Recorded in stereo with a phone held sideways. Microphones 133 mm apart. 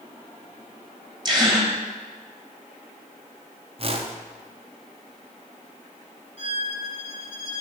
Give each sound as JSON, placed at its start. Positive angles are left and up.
{"t": 1.2, "sound": "a gasp", "side_deg": -30, "distance_m": 1.2}
{"t": 3.8, "sound": "a whoosh", "side_deg": -45, "distance_m": 0.6}
{"t": 6.4, "sound": "a violin", "side_deg": -45, "distance_m": 1.3}